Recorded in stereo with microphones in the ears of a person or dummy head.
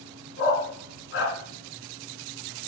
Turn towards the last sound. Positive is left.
turn(degrees=70)  # may be behind; listen again after turning